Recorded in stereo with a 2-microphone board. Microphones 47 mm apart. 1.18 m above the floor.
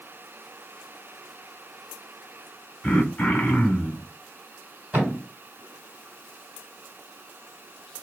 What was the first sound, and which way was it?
Throat clearing, 20° left (ahead or behind).